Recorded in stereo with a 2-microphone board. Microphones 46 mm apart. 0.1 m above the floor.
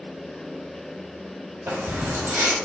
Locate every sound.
1.7 s keys jangling: 55° right (ahead or behind), 2 m